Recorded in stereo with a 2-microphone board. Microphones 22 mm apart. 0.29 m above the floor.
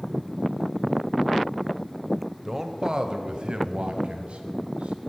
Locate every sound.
2.5 s a man speaking: 20° right (ahead or behind), 1.0 m; by 5.0 s 65° right (ahead or behind), 2.5 m